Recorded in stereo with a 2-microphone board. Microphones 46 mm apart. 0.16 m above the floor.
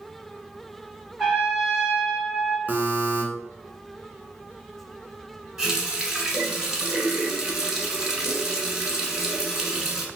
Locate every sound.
1.2 s a trumpet: 5° right (ahead or behind), 1.9 m
2.7 s a buzzer: 40° right (ahead or behind), 0.9 m
5.6 s a running tap: 15° right (ahead or behind), 1.2 m